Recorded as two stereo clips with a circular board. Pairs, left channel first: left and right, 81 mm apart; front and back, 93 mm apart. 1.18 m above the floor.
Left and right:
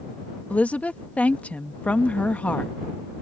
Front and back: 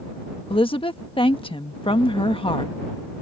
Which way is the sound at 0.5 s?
20° left.